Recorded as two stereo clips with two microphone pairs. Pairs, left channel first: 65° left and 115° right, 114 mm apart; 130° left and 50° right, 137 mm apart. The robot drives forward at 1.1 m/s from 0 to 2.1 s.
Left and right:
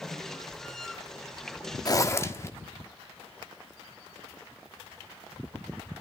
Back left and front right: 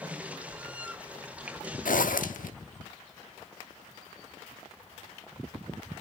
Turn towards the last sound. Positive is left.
turn(degrees=130)